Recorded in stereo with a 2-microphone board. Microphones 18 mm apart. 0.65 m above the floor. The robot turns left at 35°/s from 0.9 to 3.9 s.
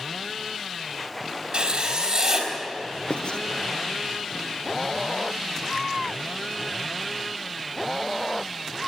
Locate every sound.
1.5 s writing: 135° right, 4.5 m; by 2.5 s 170° right, 4.5 m
3.1 s writing: 65° left (ahead or behind), 1.0 m; by 3.4 s 75° left (ahead or behind), 1.0 m